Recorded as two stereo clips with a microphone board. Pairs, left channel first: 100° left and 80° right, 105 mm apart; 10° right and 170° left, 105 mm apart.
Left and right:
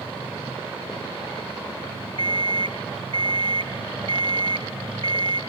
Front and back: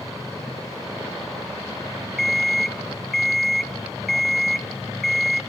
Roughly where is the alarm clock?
Right.